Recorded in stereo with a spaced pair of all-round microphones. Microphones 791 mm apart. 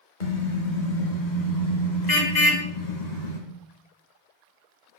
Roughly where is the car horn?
Left.